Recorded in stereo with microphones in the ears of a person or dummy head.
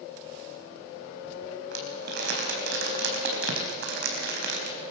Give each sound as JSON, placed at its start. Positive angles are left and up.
{"t": 1.7, "sound": "crumpling", "side_deg": -65, "distance_m": 4.5}